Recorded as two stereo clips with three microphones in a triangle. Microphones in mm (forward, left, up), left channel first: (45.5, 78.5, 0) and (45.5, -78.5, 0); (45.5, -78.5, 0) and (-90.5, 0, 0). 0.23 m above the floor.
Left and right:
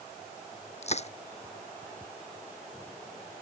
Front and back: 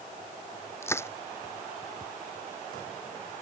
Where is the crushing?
45° left.